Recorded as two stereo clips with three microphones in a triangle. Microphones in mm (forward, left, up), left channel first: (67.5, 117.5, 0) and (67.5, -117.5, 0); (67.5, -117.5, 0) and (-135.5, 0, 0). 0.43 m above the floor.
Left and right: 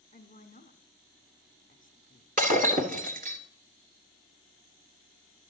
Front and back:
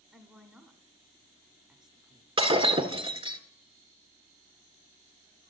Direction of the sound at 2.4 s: 140° right.